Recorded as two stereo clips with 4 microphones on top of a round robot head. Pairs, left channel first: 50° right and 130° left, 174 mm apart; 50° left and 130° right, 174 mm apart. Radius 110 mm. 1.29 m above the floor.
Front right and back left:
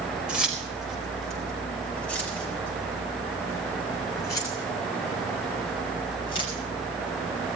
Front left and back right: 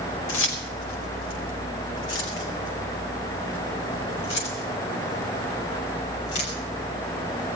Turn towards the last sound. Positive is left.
turn(degrees=15)